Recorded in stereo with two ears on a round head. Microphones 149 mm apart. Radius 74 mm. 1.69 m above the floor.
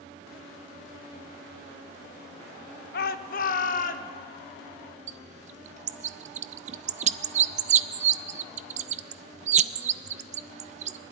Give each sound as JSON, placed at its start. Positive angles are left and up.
{"t": 2.9, "sound": "a shout", "side_deg": 60, "distance_m": 1.0}
{"t": 5.1, "sound": "a bird", "side_deg": -45, "distance_m": 0.5}